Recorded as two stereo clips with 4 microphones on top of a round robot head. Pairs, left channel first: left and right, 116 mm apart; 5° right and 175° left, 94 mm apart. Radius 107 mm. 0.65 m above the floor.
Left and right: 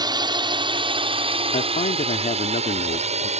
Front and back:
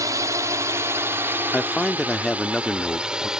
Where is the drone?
135° right; by 3.4 s 100° right.